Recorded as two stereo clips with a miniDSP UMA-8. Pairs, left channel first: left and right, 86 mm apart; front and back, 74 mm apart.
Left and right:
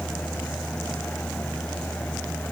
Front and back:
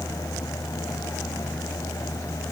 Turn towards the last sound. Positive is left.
No sound to turn to.